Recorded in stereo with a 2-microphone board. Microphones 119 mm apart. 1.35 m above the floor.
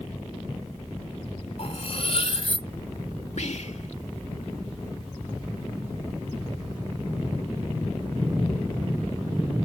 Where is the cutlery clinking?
55° left (ahead or behind).